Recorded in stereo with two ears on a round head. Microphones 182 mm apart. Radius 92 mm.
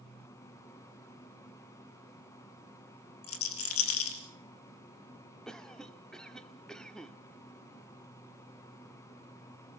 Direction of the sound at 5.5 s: 5° left (ahead or behind).